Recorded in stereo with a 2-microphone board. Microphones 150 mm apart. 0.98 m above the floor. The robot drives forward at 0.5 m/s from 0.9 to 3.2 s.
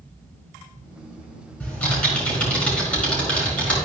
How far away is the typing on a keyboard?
About 4.5 m.